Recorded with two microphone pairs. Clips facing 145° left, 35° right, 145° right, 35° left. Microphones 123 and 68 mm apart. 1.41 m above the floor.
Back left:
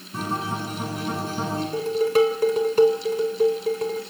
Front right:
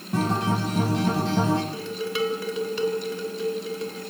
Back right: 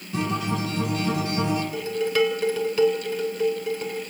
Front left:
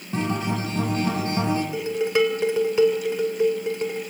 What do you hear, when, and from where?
0.1 s a guitar: 20° right, 7.5 m
1.7 s dishes clattering: 100° left, 4 m